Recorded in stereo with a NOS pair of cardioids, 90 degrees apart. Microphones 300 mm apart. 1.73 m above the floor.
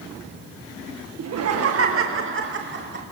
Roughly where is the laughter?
Ahead right.